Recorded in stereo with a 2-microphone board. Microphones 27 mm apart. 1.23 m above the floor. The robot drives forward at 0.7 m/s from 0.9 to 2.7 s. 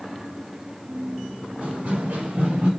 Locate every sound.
1.6 s running footsteps: 70° right (ahead or behind), 4.5 m; by 2.7 s 75° right (ahead or behind), 4.5 m